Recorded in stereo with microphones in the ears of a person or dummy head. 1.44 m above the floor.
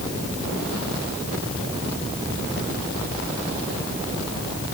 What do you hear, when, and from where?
Only background noise.